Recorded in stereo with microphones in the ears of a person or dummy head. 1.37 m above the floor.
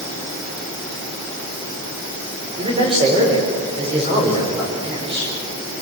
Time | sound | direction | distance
2.6 | a man speaking | 30° right (ahead or behind) | 6 m